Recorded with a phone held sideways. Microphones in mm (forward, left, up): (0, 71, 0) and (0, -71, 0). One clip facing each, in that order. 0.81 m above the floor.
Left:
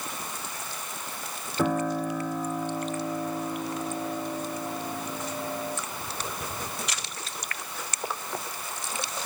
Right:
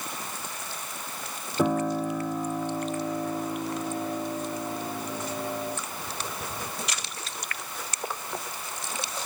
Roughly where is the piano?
Centre.